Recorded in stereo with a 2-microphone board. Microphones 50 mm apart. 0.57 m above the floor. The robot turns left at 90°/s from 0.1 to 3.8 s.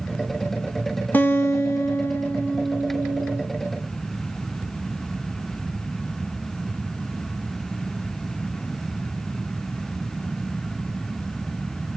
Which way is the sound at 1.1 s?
140° left.